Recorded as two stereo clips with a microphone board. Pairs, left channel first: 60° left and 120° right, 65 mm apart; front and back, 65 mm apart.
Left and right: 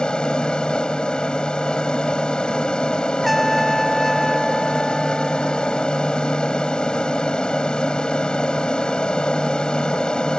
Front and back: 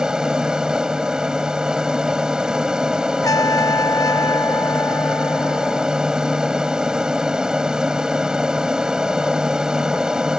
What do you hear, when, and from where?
0.0 s an aircraft: 115° left
3.2 s a trumpet: 30° right